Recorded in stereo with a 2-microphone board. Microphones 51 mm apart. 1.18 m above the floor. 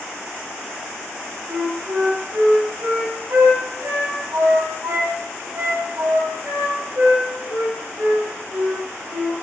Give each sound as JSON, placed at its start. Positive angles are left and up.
{"t": 1.5, "sound": "a flute", "side_deg": -90, "distance_m": 5.0}